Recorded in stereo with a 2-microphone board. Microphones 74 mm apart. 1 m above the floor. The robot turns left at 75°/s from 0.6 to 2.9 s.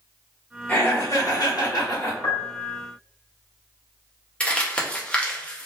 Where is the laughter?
150° left, 1.1 m; by 2.1 s 45° left, 1.1 m.